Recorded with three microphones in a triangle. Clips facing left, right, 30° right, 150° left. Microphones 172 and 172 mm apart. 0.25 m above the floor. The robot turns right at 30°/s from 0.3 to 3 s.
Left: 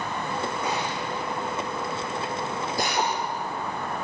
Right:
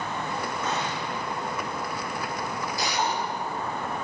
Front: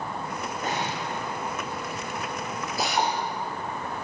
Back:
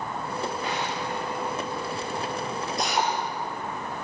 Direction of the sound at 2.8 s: 55° left.